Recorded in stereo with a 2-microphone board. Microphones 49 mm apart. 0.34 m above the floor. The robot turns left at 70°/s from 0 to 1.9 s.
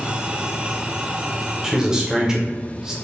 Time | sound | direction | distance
1.6 | a man speaking | 10° right (ahead or behind) | 0.9 m